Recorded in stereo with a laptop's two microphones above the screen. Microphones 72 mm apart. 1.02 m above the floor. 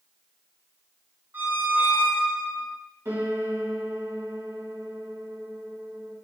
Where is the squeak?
30° right (ahead or behind), 1.2 m.